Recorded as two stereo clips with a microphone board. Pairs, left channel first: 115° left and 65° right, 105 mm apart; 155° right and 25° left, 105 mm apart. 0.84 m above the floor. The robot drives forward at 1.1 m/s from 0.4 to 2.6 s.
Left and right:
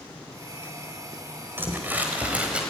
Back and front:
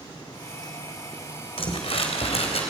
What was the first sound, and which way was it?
Crumpling, 135° right.